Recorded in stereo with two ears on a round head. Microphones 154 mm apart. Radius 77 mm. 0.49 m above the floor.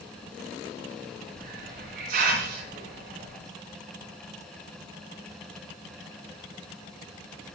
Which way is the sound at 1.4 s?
50° right (ahead or behind).